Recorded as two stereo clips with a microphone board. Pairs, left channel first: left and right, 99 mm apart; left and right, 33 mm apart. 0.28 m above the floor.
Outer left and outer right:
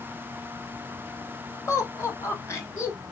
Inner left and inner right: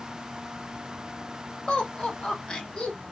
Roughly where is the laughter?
Left.